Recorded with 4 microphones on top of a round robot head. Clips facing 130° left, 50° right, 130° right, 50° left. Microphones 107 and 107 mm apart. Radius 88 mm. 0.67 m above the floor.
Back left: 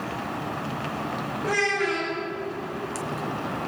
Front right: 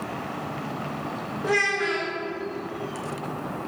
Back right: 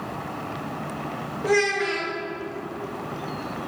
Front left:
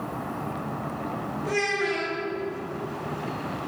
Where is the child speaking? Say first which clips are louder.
Front right 1 dB, back right 5 dB; 120° right, 2.5 m.